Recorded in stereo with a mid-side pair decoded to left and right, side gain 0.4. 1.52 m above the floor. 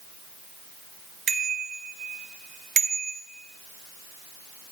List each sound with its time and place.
1.3 s a bicycle bell: 70° right, 2.5 m; by 3.2 s 65° right, 1.2 m